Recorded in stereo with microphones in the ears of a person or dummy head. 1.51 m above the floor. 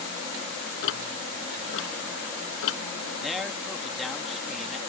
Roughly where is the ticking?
Left.